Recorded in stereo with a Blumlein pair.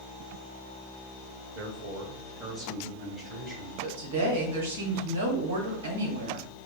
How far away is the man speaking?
About 0.7 m.